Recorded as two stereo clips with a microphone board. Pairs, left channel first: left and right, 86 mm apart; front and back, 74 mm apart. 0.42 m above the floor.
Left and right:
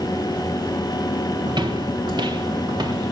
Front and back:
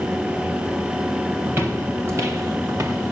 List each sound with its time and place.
1.5 s footsteps: 120° right, 1.4 m; by 3.1 s 130° right, 4 m